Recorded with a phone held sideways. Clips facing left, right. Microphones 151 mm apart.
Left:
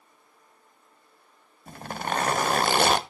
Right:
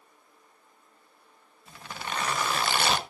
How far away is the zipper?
About 0.7 m.